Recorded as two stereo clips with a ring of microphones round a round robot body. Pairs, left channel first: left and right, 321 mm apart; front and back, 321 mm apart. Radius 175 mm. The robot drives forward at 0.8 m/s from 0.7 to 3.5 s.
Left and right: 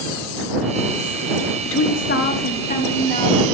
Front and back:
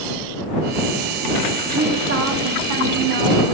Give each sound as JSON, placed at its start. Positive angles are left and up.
{"t": 1.6, "sound": "a woman speaking", "azimuth_deg": 100, "distance_m": 0.8}